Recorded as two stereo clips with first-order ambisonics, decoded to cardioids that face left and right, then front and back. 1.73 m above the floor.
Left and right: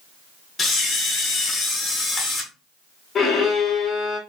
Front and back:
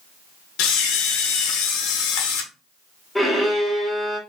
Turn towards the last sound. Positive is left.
turn(degrees=85)